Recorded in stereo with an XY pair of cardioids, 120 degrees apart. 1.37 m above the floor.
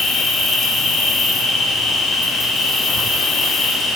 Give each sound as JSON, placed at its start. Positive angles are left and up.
{"t": 0.0, "sound": "an insect", "azimuth_deg": 55, "distance_m": 2.5}